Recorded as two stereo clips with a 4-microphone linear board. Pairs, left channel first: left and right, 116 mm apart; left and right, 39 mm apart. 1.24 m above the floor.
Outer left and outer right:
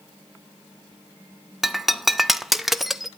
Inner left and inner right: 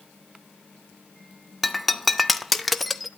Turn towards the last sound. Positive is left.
turn(degrees=0)  # may be behind; listen again after turning